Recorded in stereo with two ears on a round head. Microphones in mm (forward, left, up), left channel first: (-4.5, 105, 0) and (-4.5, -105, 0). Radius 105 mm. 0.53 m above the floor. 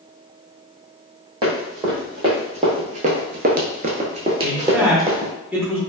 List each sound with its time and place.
1.4 s running footsteps: 20° right (ahead or behind), 1.5 m; by 5.3 s 10° right (ahead or behind), 1.1 m
4.4 s a man speaking: 10° right (ahead or behind), 0.9 m